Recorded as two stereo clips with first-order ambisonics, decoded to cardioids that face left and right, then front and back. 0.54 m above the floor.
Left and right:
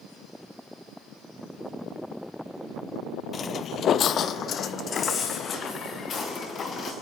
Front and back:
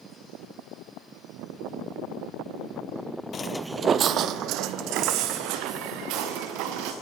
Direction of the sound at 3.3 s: 40° left.